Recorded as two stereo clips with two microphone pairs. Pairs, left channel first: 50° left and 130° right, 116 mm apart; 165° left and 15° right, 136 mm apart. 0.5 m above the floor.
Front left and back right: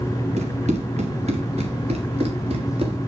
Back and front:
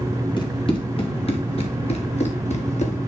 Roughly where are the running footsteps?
Behind right.